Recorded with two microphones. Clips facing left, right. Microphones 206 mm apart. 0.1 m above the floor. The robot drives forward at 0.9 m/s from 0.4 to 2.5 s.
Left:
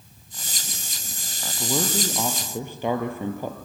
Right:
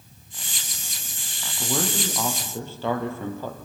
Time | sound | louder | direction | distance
1.6 | a man speaking | left 1 dB | 10° left (ahead or behind) | 3 m